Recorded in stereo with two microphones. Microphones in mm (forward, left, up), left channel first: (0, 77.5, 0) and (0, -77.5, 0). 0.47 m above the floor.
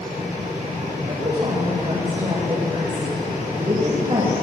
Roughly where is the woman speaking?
Right.